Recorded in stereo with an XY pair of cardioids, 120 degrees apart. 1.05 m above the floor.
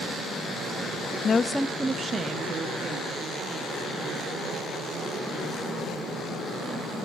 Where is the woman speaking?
40° left, 0.6 m; by 3.8 s 55° right, 2.5 m.